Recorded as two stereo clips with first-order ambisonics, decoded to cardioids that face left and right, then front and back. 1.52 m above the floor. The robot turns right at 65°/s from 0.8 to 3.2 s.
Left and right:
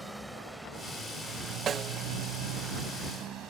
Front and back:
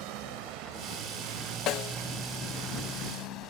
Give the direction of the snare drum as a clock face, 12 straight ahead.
1 o'clock.